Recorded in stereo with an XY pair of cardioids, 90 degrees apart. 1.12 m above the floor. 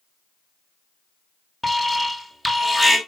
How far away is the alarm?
About 3 m.